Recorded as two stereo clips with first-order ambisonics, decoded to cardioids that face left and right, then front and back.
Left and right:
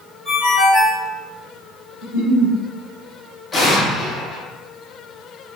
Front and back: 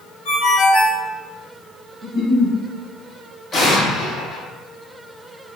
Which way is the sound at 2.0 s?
85° left.